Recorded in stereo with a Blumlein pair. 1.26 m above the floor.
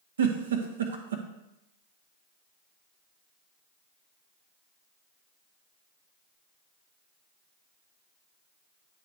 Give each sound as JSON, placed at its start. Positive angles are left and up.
{"t": 0.2, "sound": "a giggle", "azimuth_deg": -65, "distance_m": 1.0}